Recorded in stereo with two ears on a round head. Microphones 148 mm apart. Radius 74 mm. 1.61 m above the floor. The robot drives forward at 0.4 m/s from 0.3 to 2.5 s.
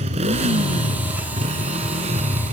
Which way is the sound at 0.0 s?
40° right (ahead or behind).